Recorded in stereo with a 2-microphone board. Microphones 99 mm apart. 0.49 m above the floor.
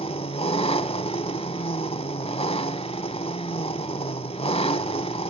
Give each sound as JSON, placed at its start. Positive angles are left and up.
{"t": 0.0, "sound": "an engine running", "side_deg": 70, "distance_m": 1.0}